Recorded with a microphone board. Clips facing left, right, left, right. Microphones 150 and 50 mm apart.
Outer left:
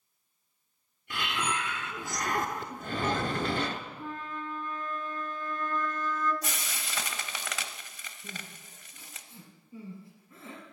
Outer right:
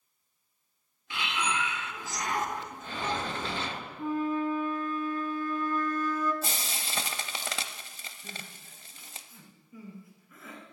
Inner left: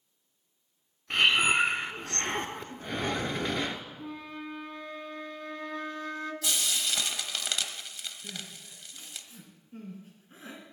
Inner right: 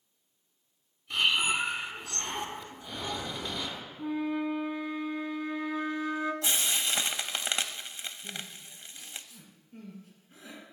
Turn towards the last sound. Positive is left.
turn(degrees=30)  # may be behind; listen again after turning